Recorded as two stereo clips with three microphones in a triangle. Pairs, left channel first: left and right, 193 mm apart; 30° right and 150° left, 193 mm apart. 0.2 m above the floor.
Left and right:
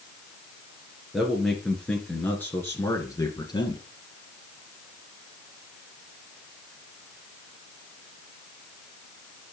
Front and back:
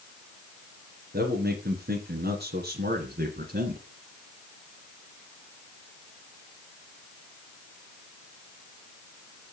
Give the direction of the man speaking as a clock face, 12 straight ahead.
6 o'clock.